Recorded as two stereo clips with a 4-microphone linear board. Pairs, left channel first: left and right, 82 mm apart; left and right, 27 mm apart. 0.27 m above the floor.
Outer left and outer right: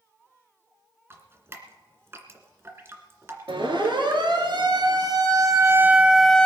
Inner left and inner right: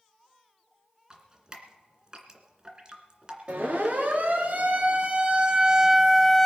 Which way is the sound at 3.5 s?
75° right (ahead or behind).